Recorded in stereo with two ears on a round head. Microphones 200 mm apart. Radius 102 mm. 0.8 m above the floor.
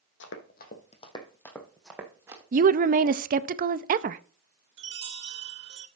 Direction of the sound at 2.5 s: 40° right (ahead or behind).